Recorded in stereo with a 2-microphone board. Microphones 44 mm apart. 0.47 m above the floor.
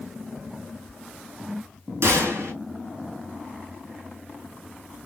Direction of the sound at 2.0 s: 80° right.